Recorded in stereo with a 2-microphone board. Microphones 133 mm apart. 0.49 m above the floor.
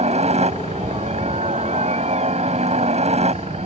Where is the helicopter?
55° right (ahead or behind).